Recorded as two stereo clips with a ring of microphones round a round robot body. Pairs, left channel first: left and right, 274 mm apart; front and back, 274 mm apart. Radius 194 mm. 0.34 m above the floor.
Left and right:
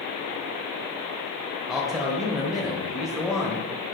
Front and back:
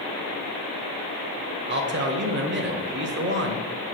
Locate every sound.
1.7 s a man speaking: straight behind, 1.2 m